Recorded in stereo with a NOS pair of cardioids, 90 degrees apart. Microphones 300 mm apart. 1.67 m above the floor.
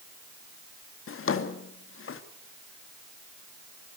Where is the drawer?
45° left, 2.5 m.